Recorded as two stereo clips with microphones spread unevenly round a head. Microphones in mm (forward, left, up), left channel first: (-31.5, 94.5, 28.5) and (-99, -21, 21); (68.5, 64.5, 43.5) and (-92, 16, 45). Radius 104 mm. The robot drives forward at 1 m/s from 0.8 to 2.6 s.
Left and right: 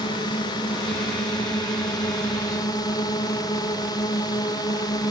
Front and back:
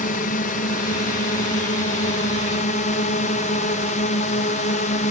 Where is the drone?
5° left.